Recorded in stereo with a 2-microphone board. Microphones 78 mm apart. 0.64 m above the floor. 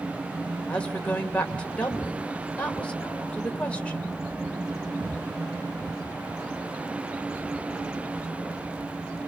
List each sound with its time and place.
0.7 s a woman speaking: 15° left (ahead or behind), 2.5 m